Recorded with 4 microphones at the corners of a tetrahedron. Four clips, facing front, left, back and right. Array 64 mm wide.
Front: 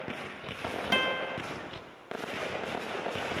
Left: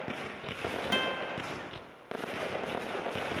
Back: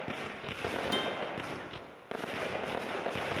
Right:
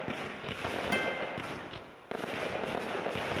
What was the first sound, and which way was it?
A guitar, straight ahead.